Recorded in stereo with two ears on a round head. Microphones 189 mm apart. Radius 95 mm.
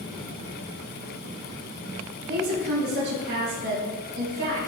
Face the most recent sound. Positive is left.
turn(degrees=-65)  # may be behind; listen again after turning